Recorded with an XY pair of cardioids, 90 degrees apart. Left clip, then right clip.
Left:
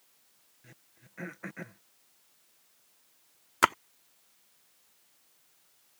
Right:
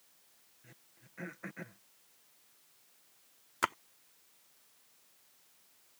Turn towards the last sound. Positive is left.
turn(degrees=60)